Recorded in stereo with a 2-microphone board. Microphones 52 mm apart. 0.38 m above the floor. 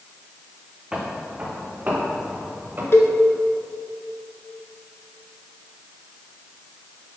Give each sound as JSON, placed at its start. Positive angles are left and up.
{"t": 0.9, "sound": "footsteps", "side_deg": -15, "distance_m": 1.3}
{"t": 2.9, "sound": "a cowbell", "side_deg": 55, "distance_m": 0.9}